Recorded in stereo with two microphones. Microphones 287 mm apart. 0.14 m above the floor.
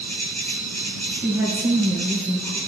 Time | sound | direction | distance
0.0 | an insect | 65° right (ahead or behind) | 1.4 m
1.1 | a woman speaking | centre (ahead or behind) | 2.0 m